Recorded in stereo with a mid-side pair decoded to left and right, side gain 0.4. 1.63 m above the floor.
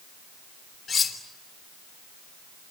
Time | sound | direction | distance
0.9 | cutlery clinking | 55° left | 3.5 m